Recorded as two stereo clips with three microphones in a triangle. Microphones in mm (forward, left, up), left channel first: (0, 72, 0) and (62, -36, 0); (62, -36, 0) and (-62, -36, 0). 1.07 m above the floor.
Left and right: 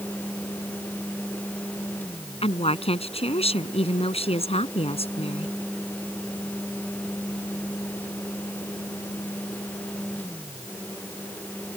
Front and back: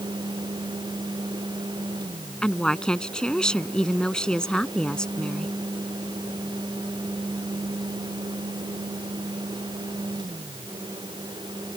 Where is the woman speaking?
85° left.